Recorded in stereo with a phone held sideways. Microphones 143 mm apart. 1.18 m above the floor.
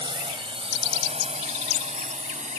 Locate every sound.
0.0 s a drone: 35° right (ahead or behind); by 2.6 s 55° right (ahead or behind)